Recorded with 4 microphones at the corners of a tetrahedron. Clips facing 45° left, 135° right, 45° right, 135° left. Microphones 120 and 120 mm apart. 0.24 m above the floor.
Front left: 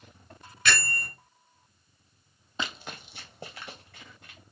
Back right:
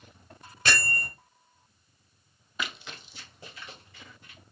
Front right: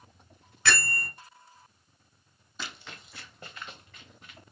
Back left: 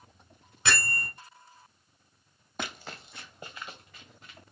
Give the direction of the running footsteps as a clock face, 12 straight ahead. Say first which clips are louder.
Front left 1 dB, back left 4 dB; 8 o'clock.